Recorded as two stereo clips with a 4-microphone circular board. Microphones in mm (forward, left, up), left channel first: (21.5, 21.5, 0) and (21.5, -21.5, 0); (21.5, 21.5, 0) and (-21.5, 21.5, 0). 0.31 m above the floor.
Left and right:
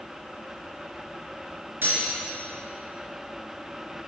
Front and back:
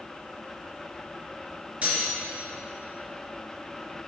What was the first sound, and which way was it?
Cutlery clinking, 125° right.